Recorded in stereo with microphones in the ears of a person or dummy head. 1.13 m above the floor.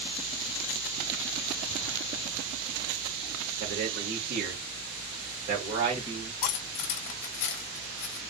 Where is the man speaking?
65° right (ahead or behind), 2.0 m; by 6.3 s 25° right (ahead or behind), 1.9 m.